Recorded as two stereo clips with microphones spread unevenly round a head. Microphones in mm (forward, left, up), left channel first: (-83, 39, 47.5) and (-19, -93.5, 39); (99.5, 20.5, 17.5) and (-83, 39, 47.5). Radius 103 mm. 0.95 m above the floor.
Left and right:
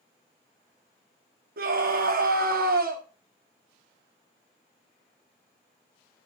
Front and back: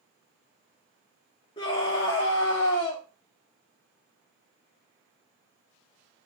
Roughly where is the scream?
Right.